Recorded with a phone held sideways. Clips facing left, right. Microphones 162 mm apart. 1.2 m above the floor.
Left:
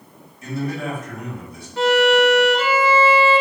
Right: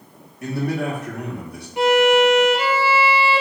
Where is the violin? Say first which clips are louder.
Right 1 dB; 15° right (ahead or behind), 0.5 m.